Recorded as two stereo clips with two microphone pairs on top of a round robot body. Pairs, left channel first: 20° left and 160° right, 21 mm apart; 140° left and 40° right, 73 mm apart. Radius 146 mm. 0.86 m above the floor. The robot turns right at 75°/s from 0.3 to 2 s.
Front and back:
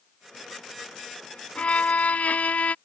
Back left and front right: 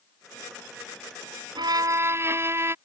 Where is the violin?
15° right; by 2.8 s 20° left.